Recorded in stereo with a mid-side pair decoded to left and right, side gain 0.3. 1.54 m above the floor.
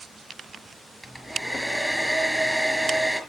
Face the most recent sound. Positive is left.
turn(degrees=0)